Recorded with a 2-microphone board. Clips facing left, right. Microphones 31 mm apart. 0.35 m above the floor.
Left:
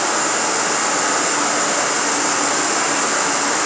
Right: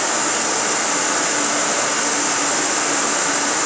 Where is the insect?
50° left (ahead or behind), 1.5 m.